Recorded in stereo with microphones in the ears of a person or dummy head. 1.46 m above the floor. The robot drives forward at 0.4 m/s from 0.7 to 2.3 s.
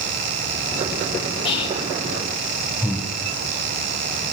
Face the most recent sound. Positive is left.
turn(degrees=-15)  # may be behind; listen again after turning